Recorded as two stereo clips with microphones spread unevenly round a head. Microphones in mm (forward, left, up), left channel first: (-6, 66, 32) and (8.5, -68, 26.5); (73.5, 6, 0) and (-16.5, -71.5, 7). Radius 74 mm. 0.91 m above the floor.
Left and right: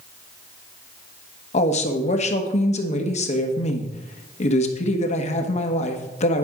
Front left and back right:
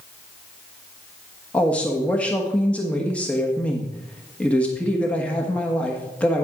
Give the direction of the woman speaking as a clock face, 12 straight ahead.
8 o'clock.